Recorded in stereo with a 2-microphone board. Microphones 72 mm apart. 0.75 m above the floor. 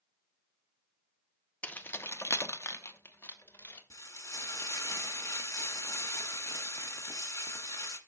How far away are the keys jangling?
About 0.5 m.